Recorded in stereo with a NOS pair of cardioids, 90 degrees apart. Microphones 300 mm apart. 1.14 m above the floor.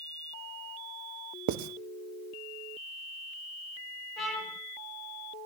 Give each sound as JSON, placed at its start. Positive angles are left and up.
{"t": 1.5, "sound": "writing", "azimuth_deg": -70, "distance_m": 0.9}
{"t": 4.2, "sound": "a trumpet", "azimuth_deg": 0, "distance_m": 7.0}